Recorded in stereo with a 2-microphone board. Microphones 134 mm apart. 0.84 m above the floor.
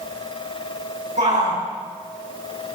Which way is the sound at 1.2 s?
65° right (ahead or behind).